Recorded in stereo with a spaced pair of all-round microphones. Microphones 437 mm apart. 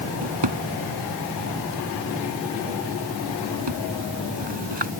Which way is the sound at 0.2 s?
75° right (ahead or behind).